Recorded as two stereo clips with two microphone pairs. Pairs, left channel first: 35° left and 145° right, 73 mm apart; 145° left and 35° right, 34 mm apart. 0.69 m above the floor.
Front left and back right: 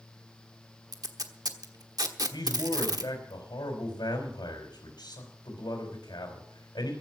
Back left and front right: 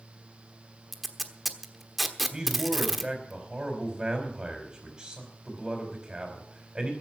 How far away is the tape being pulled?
About 1.1 m.